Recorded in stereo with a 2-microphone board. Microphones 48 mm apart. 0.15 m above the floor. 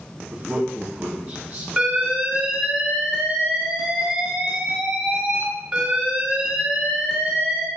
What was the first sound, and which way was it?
A man speaking, 30° right (ahead or behind).